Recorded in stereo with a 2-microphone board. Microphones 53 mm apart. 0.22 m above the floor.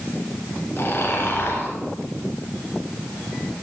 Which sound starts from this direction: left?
Snoring, at 0.8 s.